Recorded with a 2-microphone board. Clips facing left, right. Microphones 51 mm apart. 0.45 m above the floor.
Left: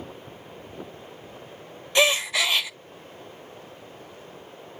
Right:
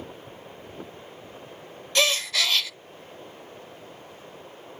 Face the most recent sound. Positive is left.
turn(degrees=20)  # may be behind; listen again after turning